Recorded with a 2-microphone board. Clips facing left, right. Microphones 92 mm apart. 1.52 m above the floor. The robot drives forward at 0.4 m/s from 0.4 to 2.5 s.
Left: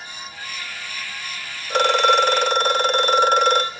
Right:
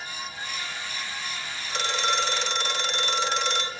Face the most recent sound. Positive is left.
turn(degrees=50)  # may be behind; listen again after turning